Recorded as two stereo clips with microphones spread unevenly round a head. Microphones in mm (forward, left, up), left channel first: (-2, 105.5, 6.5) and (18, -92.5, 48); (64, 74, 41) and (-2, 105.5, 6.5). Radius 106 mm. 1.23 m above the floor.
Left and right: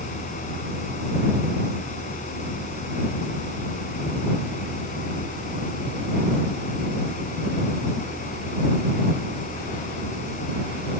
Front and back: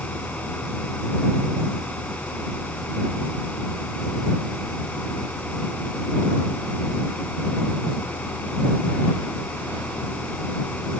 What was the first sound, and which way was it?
A fan, 40° left.